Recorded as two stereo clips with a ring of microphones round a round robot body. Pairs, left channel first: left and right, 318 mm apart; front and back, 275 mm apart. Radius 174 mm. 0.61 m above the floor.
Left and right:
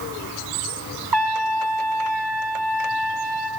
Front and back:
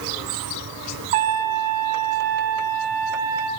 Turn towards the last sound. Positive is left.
turn(degrees=-115)